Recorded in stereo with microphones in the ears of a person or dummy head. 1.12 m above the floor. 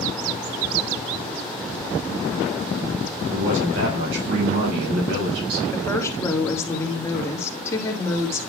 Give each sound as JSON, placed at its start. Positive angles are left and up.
{"t": 3.3, "sound": "a man speaking", "side_deg": -85, "distance_m": 5.0}
{"t": 5.7, "sound": "a woman speaking", "side_deg": 15, "distance_m": 2.0}